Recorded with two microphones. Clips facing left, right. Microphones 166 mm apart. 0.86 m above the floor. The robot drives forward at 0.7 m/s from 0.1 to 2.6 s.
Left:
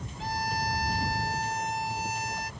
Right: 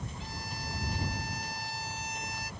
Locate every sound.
0.2 s a violin: 85° left; by 2.5 s 55° left (ahead or behind)